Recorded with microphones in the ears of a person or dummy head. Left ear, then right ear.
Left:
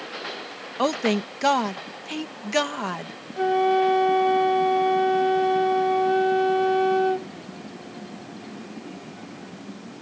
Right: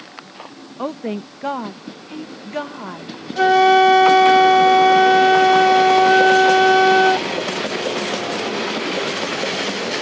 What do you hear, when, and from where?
0.8 s a woman speaking: 75° left (ahead or behind)
3.4 s a flute: 45° right (ahead or behind)